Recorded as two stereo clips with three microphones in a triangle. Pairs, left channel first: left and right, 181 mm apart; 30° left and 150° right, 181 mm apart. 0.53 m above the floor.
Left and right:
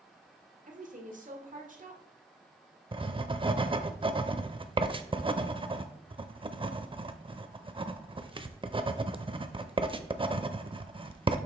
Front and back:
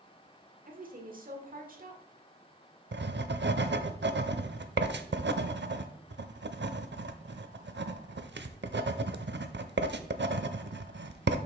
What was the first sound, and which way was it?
A woman speaking, 125° right.